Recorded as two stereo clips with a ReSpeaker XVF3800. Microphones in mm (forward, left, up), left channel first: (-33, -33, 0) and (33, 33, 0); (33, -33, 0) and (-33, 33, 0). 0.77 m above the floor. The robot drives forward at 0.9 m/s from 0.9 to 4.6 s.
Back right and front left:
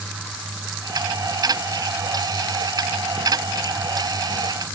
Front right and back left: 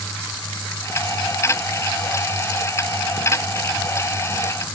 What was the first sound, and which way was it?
Only background noise.